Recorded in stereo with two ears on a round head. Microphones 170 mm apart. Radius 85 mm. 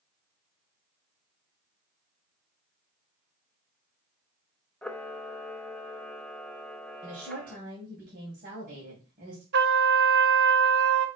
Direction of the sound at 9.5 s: 65° right (ahead or behind).